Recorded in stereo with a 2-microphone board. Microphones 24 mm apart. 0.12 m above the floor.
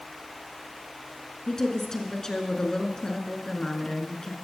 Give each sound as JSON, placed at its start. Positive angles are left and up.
{"t": 1.5, "sound": "a woman speaking", "side_deg": 30, "distance_m": 1.1}